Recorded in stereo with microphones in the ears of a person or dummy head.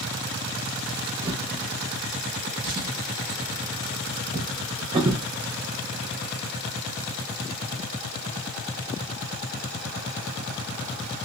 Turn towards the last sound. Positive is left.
turn(degrees=-20)  # may be behind; listen again after turning